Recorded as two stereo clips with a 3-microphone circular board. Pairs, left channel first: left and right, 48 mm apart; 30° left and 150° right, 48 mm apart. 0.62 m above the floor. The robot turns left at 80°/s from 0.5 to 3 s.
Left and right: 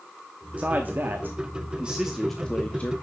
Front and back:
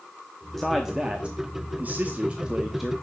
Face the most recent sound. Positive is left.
turn(degrees=115)